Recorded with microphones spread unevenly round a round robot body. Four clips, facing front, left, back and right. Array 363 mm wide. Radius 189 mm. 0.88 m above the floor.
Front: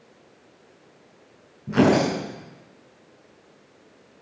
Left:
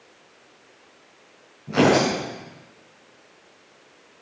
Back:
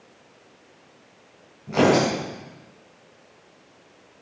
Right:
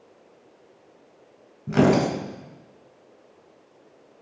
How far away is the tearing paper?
About 4 m.